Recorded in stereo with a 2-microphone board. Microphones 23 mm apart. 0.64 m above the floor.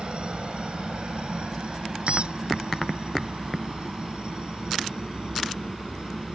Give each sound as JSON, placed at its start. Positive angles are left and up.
{"t": 0.0, "sound": "a helicopter", "side_deg": -50}
{"t": 2.1, "sound": "a squeak", "side_deg": -55}